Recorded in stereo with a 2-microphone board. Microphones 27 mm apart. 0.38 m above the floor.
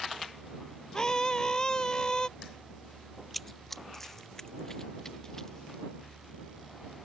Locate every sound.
0.9 s a scream: 25° left (ahead or behind)
3.3 s running footsteps: centre (ahead or behind); by 5.8 s 20° left (ahead or behind)